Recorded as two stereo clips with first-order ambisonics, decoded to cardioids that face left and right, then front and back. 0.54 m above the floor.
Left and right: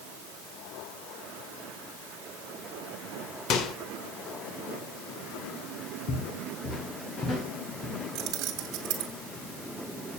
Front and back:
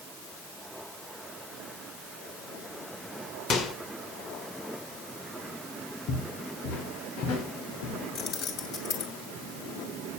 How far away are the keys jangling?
About 2.5 m.